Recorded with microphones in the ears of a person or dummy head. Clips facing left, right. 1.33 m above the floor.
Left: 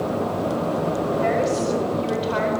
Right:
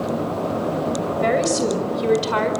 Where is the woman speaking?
65° right (ahead or behind), 6 m.